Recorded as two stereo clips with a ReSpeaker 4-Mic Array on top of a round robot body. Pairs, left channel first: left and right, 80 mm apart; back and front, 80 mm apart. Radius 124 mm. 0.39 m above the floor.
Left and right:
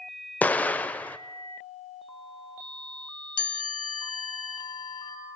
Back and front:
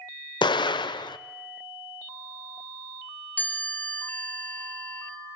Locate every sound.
0.4 s an explosion: 160° left, 0.6 m
3.4 s a chime: 110° left, 2.5 m